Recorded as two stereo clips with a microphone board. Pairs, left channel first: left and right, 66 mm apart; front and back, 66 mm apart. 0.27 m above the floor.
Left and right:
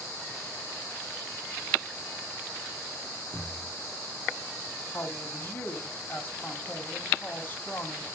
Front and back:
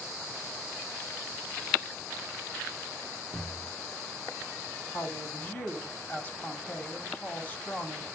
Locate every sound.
3.3 s a thud: 45° left, 6 m
4.9 s a woman speaking: 45° left, 1.3 m